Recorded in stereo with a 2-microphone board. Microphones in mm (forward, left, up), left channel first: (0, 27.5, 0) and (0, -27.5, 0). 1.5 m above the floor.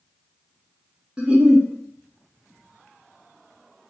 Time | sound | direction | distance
1.2 | a giggle | 15° right (ahead or behind) | 0.5 m